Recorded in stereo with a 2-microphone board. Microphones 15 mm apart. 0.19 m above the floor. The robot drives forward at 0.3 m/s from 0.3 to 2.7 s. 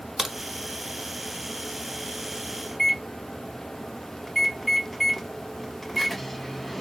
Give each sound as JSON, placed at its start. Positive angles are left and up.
{"t": 0.2, "sound": "a crack", "side_deg": -30, "distance_m": 0.7}
{"t": 2.7, "sound": "a microwave", "side_deg": 5, "distance_m": 1.0}